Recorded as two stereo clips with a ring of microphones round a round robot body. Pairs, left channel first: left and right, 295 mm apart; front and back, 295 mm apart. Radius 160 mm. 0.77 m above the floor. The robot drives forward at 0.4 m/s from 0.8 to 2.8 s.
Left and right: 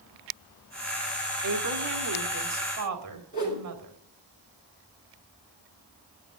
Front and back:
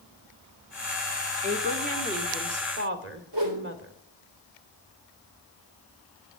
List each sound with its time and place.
1.4 s a woman speaking: 115° right, 1.8 m; by 3.9 s 130° right, 2 m
3.3 s a whoosh: 155° left, 3.5 m